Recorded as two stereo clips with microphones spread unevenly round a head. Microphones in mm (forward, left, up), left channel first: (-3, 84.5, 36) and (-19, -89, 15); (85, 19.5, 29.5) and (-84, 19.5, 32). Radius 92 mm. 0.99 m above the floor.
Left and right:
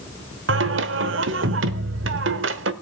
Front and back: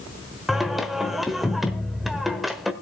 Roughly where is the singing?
Right.